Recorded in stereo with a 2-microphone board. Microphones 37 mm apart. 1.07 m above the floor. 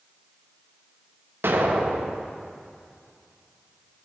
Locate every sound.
1.4 s an explosion: 85° right, 0.8 m